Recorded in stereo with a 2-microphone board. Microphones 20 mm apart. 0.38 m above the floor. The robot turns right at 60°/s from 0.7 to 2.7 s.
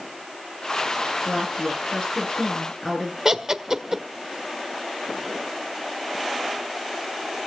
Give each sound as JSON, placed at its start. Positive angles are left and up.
{"t": 1.2, "sound": "a woman speaking", "azimuth_deg": 85, "distance_m": 7.0}
{"t": 3.2, "sound": "laughter", "side_deg": -25, "distance_m": 1.6}